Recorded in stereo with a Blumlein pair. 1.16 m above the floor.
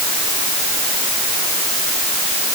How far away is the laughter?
I don't hear laughter.